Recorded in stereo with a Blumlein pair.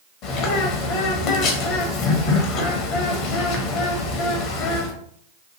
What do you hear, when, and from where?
0.2 s a bird: 40° left, 0.6 m